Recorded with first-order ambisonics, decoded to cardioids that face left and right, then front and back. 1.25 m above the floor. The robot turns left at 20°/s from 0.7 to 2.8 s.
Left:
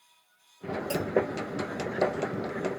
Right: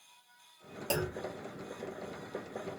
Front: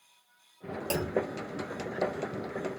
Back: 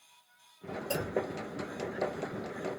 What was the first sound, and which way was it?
A clunk, 30° right.